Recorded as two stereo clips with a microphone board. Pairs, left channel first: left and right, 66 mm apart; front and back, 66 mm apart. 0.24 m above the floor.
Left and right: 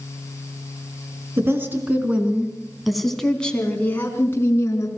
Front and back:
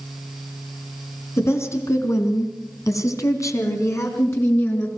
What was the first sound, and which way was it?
A woman speaking, 40° right.